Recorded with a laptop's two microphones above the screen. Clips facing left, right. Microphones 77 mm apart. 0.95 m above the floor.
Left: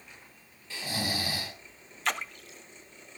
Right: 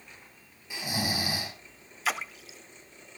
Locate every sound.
0.7 s snoring: 15° right (ahead or behind), 4 m
2.0 s a splash: 5° right (ahead or behind), 0.5 m